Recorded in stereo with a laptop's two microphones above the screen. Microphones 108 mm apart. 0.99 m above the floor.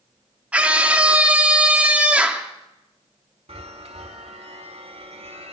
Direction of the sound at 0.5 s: 10° right (ahead or behind).